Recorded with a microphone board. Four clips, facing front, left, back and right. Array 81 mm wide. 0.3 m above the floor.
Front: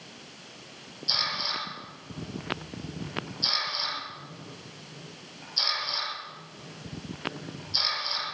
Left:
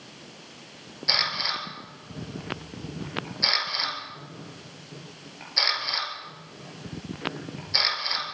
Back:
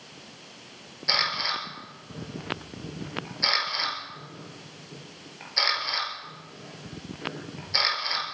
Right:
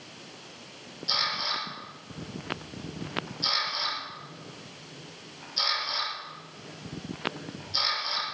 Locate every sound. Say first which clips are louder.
1.1 s a camera shutter: left 2 dB, back 5 dB; 145° left, 4 m